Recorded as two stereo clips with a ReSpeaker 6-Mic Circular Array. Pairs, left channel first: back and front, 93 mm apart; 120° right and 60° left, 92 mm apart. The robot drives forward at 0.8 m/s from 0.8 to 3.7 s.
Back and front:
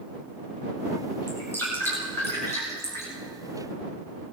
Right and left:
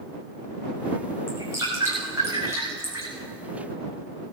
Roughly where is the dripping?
Behind left.